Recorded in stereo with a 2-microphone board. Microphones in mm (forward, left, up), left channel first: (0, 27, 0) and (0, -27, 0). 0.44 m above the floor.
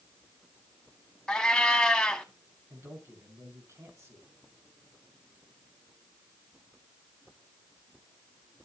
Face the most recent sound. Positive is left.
turn(degrees=-55)  # may be behind; listen again after turning